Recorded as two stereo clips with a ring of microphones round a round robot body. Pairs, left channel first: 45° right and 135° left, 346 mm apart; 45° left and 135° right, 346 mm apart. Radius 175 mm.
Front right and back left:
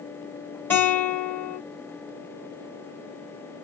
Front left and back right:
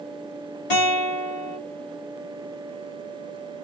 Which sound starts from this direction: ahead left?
A guitar, at 0.7 s.